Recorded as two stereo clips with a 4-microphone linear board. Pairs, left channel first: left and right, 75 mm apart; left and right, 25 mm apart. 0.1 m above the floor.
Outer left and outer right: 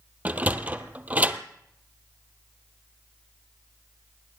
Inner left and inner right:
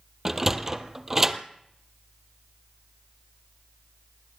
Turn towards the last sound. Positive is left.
turn(degrees=-20)  # may be behind; listen again after turning